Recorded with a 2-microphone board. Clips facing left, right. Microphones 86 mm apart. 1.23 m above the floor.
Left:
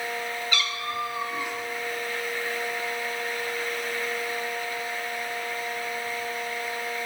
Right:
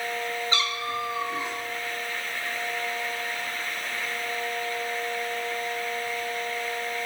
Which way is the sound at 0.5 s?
30° right (ahead or behind).